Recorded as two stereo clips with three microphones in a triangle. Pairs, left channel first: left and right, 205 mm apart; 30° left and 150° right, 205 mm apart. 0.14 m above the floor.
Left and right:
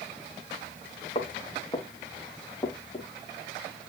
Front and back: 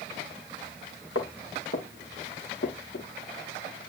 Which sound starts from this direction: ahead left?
Footsteps, at 1.1 s.